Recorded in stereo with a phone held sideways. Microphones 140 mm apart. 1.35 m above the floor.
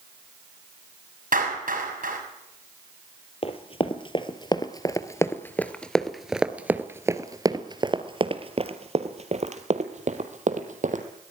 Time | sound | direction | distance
1.3 | a clap | 85° right | 6.5 m
3.4 | running footsteps | 45° left (ahead or behind) | 2 m